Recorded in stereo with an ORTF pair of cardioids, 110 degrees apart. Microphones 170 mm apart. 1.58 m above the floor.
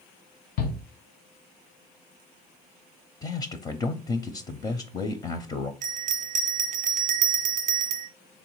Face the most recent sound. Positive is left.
turn(degrees=-50)